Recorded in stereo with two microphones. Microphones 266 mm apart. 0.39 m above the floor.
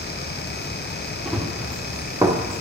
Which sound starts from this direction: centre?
Running footsteps, at 1.2 s.